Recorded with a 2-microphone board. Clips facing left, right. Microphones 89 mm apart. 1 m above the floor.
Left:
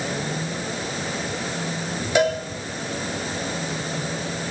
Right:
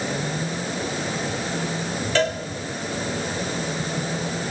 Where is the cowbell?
15° left (ahead or behind), 1.4 m.